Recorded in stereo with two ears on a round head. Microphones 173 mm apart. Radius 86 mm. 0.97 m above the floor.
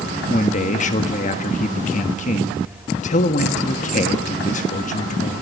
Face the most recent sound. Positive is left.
turn(degrees=40)  # may be behind; listen again after turning